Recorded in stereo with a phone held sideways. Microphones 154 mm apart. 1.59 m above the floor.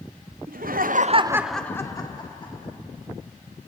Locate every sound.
0.5 s laughter: 80° right, 1.1 m; by 2.7 s 35° left (ahead or behind), 2 m